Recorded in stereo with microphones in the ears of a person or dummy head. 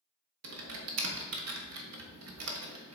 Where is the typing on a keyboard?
85° right, 1.2 m.